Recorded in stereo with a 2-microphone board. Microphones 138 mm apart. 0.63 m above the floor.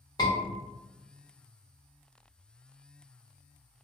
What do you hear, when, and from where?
0.2 s a scream: 25° left (ahead or behind), 1.5 m